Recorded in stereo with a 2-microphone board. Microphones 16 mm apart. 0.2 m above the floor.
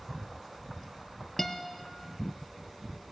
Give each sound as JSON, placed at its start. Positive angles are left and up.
{"t": 1.4, "sound": "a guitar", "side_deg": 10, "distance_m": 1.4}